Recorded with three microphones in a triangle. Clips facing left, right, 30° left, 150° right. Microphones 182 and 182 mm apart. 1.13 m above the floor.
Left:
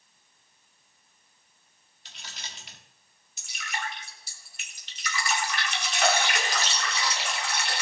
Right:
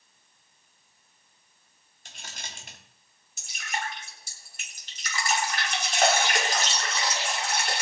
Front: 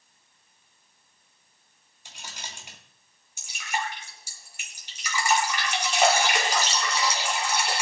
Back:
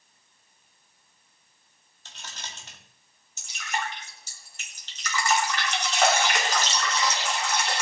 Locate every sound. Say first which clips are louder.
2.0 s keys jangling: right 2 dB, even; 50° right, 2 m
3.4 s dripping: right 2 dB, front 1 dB; 50° right, 3 m